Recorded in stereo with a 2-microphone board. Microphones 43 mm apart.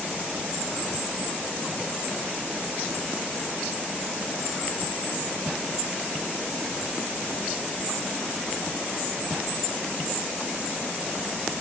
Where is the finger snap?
No finger snap in this recording.